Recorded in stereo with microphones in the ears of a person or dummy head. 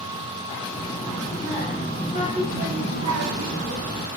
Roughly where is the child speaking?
Centre.